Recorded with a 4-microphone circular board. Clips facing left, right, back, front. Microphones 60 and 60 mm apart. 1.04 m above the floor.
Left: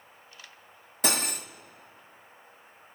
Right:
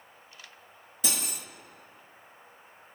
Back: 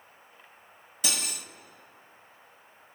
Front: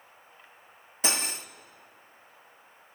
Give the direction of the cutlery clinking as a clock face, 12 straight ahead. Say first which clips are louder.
Left 6 dB, front 4 dB; 10 o'clock.